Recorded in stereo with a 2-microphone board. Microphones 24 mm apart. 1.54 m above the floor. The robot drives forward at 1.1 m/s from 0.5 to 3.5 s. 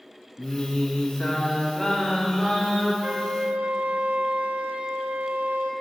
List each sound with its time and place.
0.4 s singing: 45° left (ahead or behind), 0.8 m; by 2.9 s 10° left (ahead or behind), 3 m
3.0 s a flute: 60° right (ahead or behind), 0.6 m; by 5.7 s 70° right (ahead or behind), 0.6 m